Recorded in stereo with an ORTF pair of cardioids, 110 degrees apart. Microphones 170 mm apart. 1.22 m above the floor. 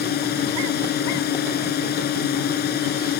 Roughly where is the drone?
Left.